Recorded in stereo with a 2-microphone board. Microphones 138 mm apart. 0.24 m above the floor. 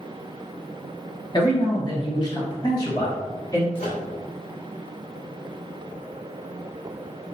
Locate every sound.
1.3 s a man speaking: 30° left (ahead or behind), 1.9 m; by 3.6 s 25° left (ahead or behind), 1.6 m
3.8 s a microwave: 50° left (ahead or behind), 2 m